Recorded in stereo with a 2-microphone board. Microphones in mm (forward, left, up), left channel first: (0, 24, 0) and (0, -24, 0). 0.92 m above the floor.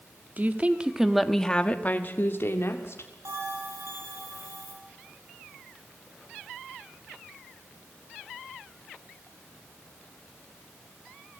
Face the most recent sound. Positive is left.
turn(degrees=-80)